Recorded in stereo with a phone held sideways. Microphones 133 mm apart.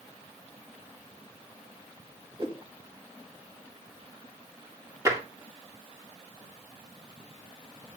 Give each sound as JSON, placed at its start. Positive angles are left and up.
{"t": 2.4, "sound": "a whoosh", "side_deg": -40, "distance_m": 2.0}
{"t": 5.0, "sound": "tapping", "side_deg": -25, "distance_m": 2.0}